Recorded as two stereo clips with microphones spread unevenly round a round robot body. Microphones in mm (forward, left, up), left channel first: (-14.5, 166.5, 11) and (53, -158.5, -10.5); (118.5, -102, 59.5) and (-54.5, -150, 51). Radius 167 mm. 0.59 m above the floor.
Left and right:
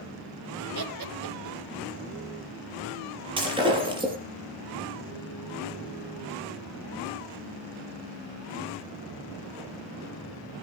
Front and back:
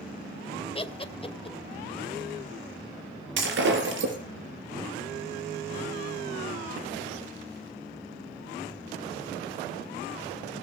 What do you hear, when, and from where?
0.8 s laughter: 45° right, 2.5 m
3.4 s breaking glass: 155° right, 5 m